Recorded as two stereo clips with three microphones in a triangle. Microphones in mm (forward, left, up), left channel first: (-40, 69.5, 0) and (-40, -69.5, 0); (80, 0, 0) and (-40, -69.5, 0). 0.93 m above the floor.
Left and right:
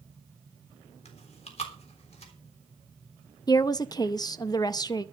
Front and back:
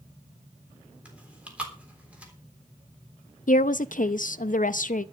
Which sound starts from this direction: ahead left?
A woman speaking, at 3.5 s.